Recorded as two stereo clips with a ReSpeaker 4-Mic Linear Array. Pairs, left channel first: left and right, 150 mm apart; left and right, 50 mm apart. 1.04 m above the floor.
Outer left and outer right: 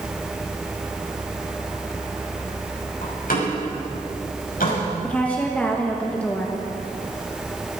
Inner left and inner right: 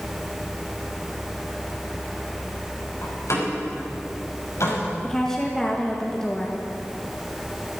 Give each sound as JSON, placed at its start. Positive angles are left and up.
{"t": 3.0, "sound": "a door slam", "side_deg": 85, "distance_m": 5.5}
{"t": 5.0, "sound": "a woman speaking", "side_deg": 10, "distance_m": 1.3}